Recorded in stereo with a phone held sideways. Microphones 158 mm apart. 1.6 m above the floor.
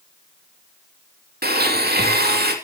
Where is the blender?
75° right (ahead or behind), 2.5 m.